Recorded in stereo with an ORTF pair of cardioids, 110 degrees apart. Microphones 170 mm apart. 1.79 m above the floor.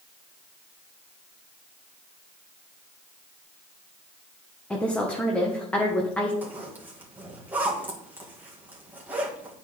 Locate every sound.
4.7 s a woman speaking: 5° left, 1.5 m
6.4 s a zipper: 10° right, 3 m